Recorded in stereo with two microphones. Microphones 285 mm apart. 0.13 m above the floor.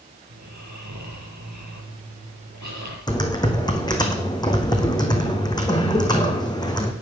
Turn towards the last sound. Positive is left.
turn(degrees=15)  # may be behind; listen again after turning